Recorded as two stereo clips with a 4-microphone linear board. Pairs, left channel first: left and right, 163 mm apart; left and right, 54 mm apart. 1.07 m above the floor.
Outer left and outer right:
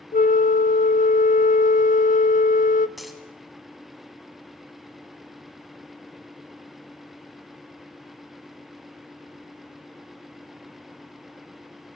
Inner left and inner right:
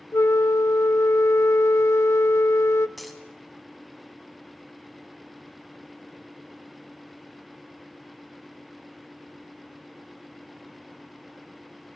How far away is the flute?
About 0.5 m.